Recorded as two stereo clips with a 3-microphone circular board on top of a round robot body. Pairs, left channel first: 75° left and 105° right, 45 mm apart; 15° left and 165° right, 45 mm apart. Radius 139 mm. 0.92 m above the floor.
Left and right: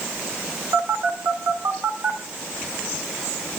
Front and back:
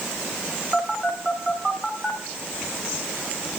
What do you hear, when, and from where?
0.7 s a phone buzzing: 80° right, 3 m